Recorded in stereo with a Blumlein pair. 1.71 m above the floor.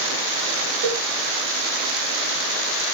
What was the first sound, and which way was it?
A cowbell, 65° right.